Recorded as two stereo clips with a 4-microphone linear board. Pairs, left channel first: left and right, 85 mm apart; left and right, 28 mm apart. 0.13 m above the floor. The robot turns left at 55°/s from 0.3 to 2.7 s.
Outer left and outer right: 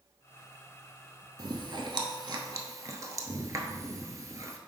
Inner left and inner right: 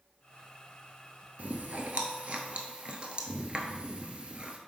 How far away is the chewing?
About 0.7 m.